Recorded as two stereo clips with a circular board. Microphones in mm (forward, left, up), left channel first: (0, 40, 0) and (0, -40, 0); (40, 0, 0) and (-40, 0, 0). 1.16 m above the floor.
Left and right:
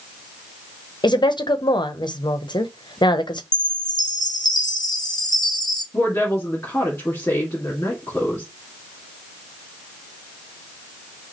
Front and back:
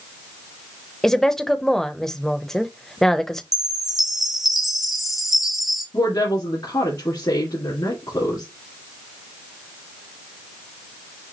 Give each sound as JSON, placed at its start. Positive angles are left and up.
{"t": 1.0, "sound": "a woman speaking", "azimuth_deg": 85, "distance_m": 0.7}
{"t": 3.5, "sound": "a chime", "azimuth_deg": 95, "distance_m": 0.8}
{"t": 5.9, "sound": "a woman speaking", "azimuth_deg": 30, "distance_m": 2.0}